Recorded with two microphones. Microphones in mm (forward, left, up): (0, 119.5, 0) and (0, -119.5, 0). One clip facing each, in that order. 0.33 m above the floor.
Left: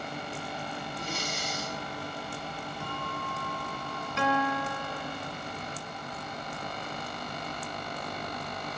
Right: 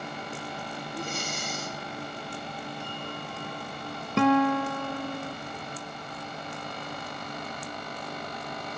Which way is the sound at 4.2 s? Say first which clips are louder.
Right 8 dB; 65° right (ahead or behind).